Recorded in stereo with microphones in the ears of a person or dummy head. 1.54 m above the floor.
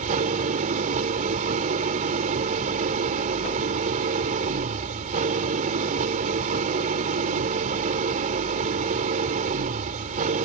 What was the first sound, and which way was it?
An engine running, 45° right (ahead or behind).